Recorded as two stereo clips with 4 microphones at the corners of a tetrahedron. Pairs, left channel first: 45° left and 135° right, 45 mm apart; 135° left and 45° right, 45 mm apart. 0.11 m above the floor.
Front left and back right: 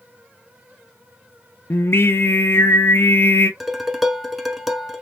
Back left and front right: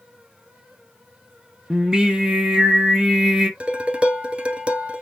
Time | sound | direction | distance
1.7 | singing | 25° left | 0.6 m
3.6 | dishes clattering | 55° right | 0.9 m